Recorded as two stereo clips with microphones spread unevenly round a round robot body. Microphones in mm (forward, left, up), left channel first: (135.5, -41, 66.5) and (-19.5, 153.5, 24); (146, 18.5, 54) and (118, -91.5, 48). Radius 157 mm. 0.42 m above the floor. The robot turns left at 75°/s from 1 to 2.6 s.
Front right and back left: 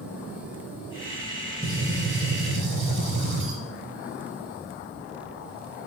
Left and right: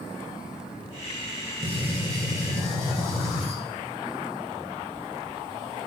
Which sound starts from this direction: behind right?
A gunshot, at 1.6 s.